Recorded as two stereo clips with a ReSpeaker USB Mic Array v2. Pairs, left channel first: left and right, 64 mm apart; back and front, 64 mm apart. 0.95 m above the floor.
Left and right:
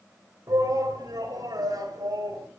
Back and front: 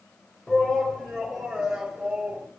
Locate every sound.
0.5 s a shout: 100° right, 5 m; by 2.5 s 80° right, 5.5 m